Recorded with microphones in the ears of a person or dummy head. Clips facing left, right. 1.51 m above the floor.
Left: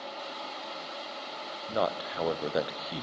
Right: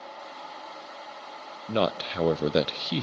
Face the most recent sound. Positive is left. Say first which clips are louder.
# right 4 dB
turn(degrees=-35)  # may be behind; listen again after turning